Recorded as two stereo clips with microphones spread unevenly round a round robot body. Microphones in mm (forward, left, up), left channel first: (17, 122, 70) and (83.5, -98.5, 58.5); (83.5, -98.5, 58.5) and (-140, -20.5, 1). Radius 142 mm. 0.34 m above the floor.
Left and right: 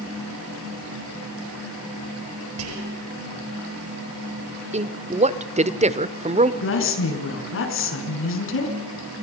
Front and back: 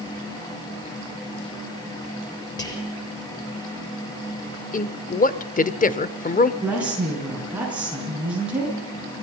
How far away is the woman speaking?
About 5.5 m.